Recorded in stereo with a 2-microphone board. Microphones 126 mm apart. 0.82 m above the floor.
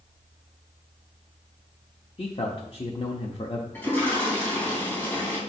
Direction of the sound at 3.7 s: 15° left (ahead or behind).